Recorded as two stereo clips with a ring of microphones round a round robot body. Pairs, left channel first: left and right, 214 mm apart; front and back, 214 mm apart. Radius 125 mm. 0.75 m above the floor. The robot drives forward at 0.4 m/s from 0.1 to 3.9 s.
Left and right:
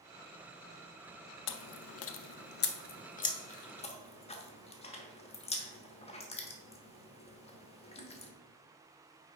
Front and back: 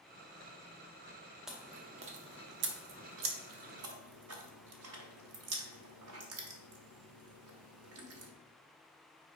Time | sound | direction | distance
1.5 | chewing | 90° left | 0.5 m